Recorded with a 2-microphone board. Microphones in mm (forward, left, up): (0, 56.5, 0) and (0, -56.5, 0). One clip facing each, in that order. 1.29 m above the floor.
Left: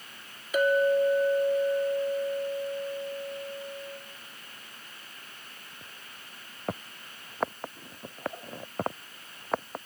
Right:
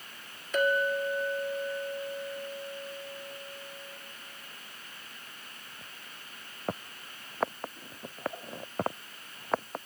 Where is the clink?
5° left (ahead or behind), 1.4 m.